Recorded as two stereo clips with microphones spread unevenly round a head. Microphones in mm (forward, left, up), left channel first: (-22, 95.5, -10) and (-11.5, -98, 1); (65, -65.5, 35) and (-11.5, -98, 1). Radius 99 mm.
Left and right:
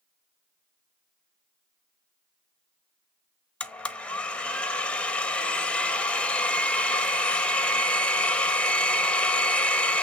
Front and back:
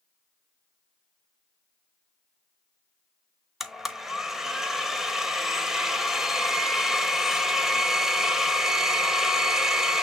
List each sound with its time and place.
3.6 s a blender: 10° left, 0.8 m